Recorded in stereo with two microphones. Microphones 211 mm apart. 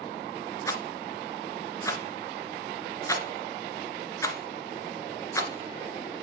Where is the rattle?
15° left (ahead or behind), 1.9 m.